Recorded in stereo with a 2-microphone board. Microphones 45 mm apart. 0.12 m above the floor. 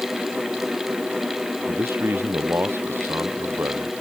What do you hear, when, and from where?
1.7 s a man speaking: 60° right (ahead or behind)